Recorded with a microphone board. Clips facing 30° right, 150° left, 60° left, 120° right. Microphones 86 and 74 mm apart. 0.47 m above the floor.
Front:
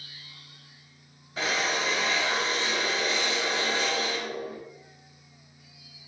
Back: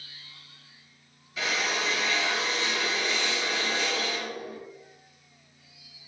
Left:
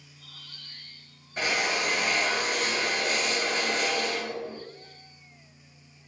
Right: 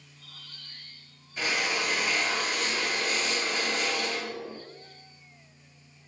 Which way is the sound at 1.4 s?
20° left.